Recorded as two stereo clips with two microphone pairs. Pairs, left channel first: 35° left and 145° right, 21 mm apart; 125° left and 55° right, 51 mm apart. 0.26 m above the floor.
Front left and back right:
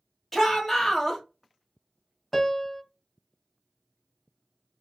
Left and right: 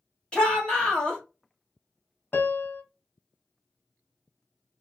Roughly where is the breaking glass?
I don't hear breaking glass.